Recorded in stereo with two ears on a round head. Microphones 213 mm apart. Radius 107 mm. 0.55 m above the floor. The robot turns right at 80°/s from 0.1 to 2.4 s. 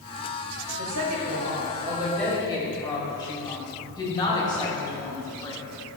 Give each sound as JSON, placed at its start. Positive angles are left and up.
{"t": 0.8, "sound": "a woman speaking", "azimuth_deg": -110, "distance_m": 2.5}